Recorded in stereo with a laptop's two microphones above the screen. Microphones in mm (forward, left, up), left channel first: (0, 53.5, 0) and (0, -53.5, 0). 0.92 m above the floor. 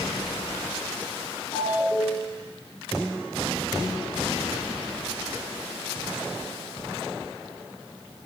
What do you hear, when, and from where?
1.5 s a ringtone: 30° left (ahead or behind), 5.5 m